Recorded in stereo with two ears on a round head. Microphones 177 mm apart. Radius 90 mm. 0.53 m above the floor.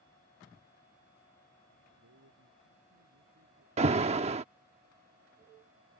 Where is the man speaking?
85° right.